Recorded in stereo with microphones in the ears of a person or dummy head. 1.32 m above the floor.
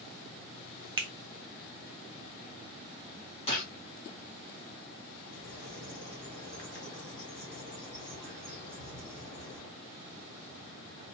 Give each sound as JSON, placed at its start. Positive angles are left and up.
{"t": 1.0, "sound": "a finger snap", "side_deg": -25, "distance_m": 0.7}
{"t": 3.5, "sound": "a gunshot", "side_deg": 35, "distance_m": 1.4}
{"t": 5.2, "sound": "a bird", "side_deg": 20, "distance_m": 1.8}